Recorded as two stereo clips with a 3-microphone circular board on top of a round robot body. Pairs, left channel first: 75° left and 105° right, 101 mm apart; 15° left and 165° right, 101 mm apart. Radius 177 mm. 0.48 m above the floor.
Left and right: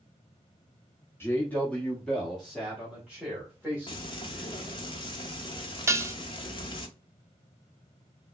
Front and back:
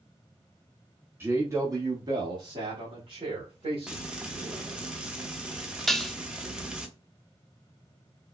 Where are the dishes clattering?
70° right, 0.6 m.